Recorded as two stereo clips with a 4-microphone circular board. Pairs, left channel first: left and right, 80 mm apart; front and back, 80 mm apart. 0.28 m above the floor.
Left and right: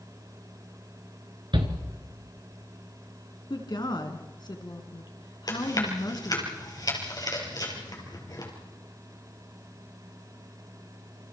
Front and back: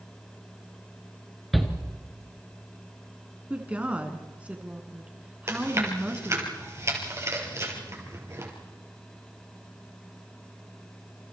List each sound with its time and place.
1.5 s a shout: 90° right, 3 m
3.5 s a woman speaking: 110° left, 3 m
5.5 s chewing: 130° left, 5 m